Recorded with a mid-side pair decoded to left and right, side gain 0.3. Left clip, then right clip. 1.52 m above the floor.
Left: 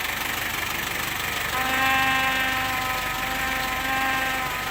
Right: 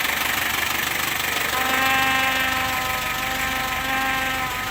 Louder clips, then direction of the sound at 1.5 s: Right 1 dB; 30° right.